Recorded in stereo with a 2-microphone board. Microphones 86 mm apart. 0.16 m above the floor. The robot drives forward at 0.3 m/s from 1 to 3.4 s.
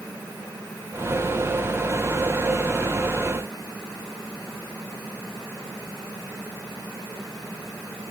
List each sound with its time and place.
Only background noise.